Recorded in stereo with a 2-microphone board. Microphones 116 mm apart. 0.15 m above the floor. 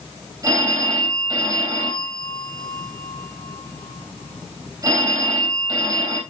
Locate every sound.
0.4 s a phone ringing: 35° right (ahead or behind), 4 m